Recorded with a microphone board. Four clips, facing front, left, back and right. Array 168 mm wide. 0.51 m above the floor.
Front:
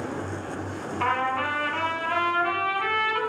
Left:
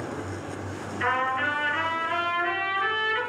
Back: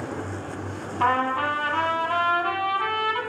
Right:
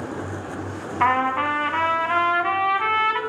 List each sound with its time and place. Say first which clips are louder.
1.0 s a trumpet: right 6 dB, back 3 dB; 110° right, 1.9 m